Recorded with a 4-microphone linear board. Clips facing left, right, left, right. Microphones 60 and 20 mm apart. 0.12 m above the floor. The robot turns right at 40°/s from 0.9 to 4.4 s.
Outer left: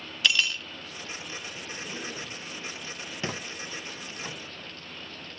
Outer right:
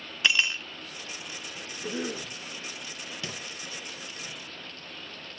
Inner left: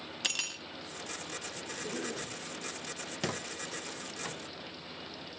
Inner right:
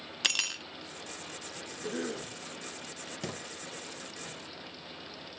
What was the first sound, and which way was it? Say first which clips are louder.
Cutlery clinking: outer right 1 dB, inner right 5 dB; 25° right (ahead or behind).